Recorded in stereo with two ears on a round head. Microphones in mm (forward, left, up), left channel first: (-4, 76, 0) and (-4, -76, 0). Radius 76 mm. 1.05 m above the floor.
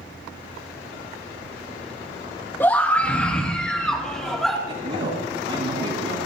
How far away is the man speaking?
About 9 m.